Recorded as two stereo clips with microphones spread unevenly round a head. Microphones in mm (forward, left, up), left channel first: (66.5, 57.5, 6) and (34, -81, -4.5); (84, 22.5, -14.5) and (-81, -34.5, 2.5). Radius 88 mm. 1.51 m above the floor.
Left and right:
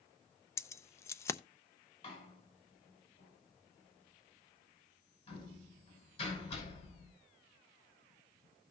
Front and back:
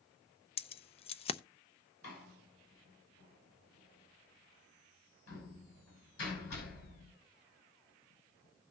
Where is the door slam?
30° left, 6 m.